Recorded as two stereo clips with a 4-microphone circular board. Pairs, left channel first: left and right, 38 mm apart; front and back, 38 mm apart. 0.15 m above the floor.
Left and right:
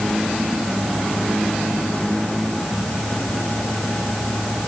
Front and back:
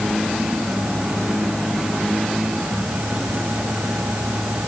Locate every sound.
Only background noise.